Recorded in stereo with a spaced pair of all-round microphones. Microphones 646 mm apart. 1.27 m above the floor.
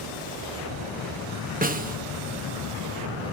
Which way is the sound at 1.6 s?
15° right (ahead or behind).